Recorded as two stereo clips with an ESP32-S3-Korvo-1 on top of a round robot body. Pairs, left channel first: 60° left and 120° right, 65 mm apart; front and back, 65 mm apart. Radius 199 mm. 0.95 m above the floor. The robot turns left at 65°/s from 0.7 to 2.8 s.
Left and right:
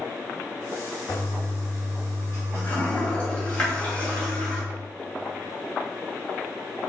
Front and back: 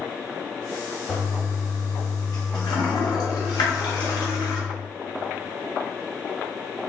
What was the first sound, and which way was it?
A toilet flushing, 100° left.